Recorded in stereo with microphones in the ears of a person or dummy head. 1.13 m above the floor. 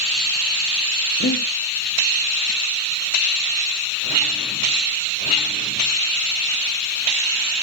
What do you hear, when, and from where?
1.2 s breathing: 45° left (ahead or behind), 2.5 m